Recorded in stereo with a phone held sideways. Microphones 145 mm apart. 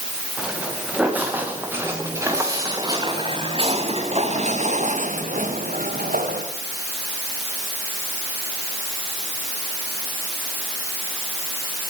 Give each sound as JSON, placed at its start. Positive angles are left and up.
{"t": 0.4, "sound": "footsteps", "side_deg": -5, "distance_m": 7.5}